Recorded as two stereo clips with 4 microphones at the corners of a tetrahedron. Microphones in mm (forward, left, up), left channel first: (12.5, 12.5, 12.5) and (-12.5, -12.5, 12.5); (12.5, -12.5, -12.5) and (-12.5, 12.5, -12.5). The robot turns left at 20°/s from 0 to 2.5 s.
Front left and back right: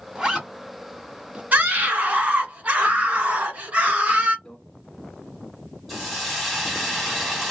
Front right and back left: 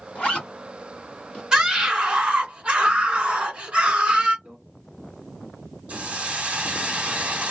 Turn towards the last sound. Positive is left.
turn(degrees=140)